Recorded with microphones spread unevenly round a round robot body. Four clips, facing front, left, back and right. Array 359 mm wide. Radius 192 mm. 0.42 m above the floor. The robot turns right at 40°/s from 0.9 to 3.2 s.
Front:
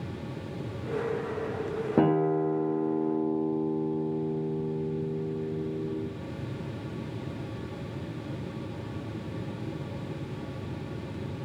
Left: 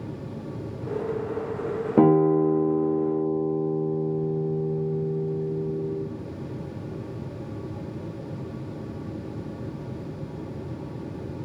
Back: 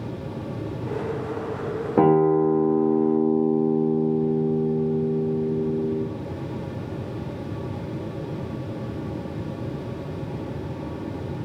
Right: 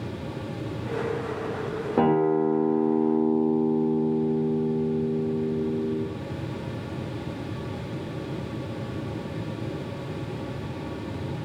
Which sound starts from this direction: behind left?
A guitar, at 2.0 s.